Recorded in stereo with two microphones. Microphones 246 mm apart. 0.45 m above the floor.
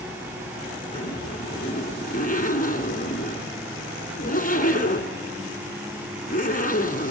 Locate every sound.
0.9 s a zipper: 35° left (ahead or behind), 2.5 m